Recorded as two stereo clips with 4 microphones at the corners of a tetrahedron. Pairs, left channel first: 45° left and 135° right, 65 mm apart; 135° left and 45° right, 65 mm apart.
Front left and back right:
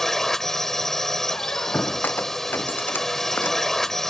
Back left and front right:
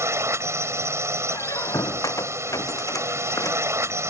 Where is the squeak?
105° left.